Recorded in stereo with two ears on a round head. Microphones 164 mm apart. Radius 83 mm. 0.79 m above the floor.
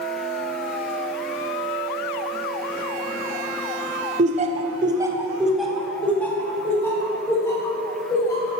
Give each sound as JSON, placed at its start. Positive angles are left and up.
{"t": 4.2, "sound": "laughter", "side_deg": -40, "distance_m": 0.6}